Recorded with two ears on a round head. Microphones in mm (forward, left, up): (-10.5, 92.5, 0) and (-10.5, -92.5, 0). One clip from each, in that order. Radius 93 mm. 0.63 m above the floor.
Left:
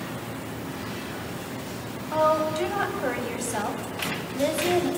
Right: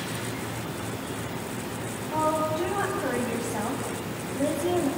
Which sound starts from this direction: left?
A woman speaking, at 2.1 s.